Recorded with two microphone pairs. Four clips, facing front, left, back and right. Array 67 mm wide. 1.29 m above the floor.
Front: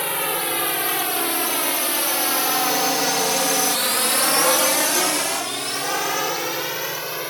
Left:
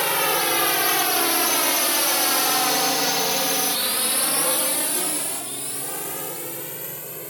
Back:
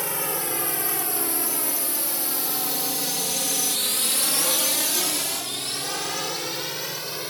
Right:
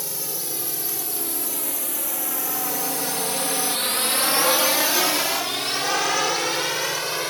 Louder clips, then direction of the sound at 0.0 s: Left 14 dB, front 5 dB; 70° left.